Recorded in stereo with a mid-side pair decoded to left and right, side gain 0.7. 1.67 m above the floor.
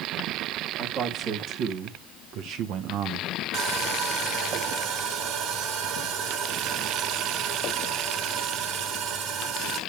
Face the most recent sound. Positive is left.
turn(degrees=-50)